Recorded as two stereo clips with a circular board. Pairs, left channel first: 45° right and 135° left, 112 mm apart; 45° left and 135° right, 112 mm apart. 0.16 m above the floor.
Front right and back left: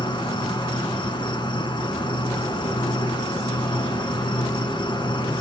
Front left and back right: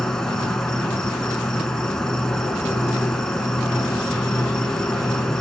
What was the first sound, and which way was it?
An insect, 40° right.